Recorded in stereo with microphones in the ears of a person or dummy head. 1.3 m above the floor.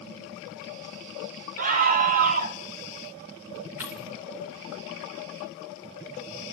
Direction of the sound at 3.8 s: 15° right (ahead or behind).